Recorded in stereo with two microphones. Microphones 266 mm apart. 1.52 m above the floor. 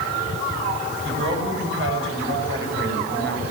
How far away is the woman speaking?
About 8 m.